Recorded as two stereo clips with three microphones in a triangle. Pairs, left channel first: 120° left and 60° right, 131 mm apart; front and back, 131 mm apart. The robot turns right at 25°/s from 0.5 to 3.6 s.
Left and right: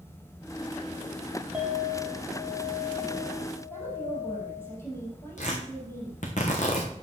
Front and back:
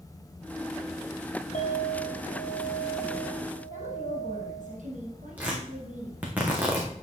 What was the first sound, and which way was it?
A clink, 20° left.